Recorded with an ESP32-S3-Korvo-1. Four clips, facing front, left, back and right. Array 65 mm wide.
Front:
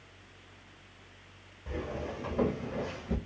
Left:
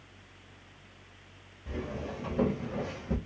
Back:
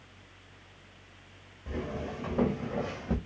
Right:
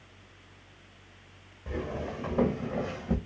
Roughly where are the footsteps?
Right.